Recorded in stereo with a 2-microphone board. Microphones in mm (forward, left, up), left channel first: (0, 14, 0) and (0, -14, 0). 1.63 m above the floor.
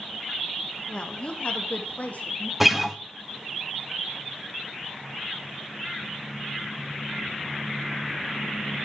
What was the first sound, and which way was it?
A woman speaking, 35° left (ahead or behind).